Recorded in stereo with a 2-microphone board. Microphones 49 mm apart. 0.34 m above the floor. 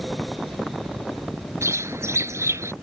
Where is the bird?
70° right (ahead or behind).